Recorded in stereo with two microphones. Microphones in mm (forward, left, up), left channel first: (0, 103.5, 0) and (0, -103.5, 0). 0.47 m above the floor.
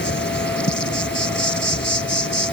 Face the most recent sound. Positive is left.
turn(degrees=60)  # may be behind; listen again after turning